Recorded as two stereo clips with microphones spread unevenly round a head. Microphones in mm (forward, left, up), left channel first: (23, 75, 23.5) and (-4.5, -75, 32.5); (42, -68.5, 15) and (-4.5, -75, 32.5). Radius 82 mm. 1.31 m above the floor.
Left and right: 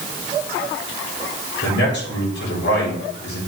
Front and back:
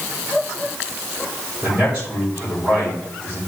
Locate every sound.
1.6 s a man speaking: 100° left, 6.5 m